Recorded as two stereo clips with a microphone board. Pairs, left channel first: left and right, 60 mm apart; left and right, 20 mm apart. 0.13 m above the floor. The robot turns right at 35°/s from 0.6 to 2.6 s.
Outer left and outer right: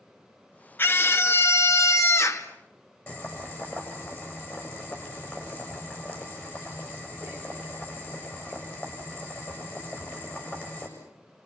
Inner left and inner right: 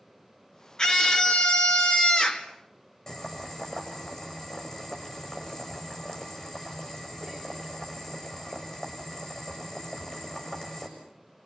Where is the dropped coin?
No dropped coin in this recording.